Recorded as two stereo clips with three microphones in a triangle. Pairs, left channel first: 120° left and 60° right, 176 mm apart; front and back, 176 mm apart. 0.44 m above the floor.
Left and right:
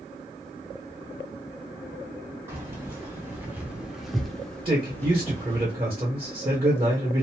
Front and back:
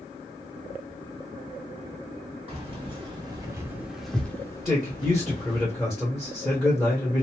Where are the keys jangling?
130° right, 1.4 m; by 5.7 s 45° left, 1.4 m.